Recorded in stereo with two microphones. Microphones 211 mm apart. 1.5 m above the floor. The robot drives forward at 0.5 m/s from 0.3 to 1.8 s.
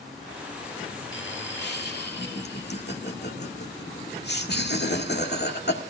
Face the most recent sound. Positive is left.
turn(degrees=55)  # may be behind; listen again after turning